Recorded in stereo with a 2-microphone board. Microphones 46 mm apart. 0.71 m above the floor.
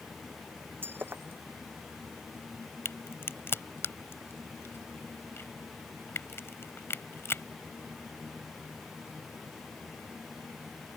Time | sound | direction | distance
0.8 | breaking glass | 55° right (ahead or behind) | ?
2.9 | a crack | 65° left (ahead or behind) | ?